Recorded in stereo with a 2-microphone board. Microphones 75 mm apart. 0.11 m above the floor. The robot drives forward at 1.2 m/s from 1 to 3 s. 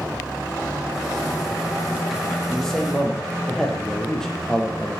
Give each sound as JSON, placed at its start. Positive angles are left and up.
{"t": 2.5, "sound": "a man speaking", "side_deg": 10, "distance_m": 3.0}